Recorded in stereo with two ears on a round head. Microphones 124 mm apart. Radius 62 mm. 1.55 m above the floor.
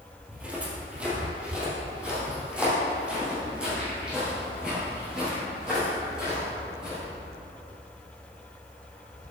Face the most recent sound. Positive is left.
turn(degrees=-5)  # may be behind; listen again after turning